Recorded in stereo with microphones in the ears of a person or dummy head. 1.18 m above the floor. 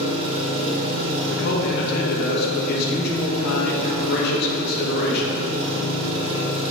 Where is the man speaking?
60° left (ahead or behind), 1.8 m.